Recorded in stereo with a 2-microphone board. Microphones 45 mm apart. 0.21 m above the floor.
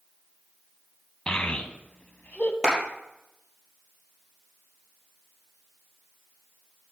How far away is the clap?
About 3.5 m.